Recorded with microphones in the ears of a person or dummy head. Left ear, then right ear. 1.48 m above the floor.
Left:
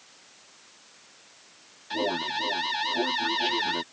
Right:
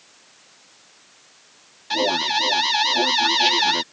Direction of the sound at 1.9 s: 40° right (ahead or behind).